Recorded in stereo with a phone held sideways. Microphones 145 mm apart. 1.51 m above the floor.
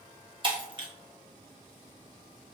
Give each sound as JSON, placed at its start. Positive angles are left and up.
{"t": 0.4, "sound": "breaking glass", "side_deg": -35, "distance_m": 1.0}